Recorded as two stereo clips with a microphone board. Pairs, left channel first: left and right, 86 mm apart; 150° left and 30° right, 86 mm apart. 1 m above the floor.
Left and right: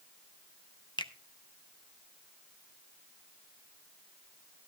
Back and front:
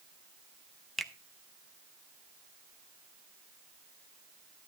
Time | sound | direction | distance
1.0 | a finger snap | 60° left | 0.7 m